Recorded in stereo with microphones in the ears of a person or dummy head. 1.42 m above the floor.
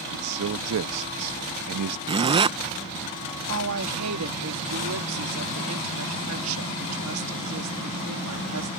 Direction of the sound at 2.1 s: 30° right (ahead or behind).